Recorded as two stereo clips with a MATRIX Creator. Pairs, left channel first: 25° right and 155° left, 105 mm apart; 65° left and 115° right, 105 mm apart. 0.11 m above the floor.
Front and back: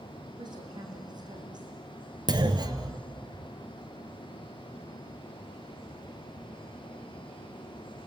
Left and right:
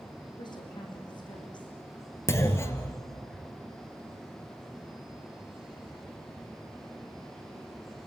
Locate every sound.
0.4 s a woman speaking: 110° left, 6 m
2.3 s a clunk: 125° left, 1.6 m